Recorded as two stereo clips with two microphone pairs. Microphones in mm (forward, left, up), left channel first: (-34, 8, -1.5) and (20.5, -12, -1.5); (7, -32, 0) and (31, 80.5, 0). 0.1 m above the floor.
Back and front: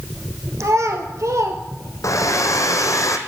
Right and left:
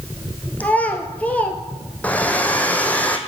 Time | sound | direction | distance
0.6 | a child speaking | 25° right | 1.4 m
2.0 | a hair dryer | straight behind | 0.9 m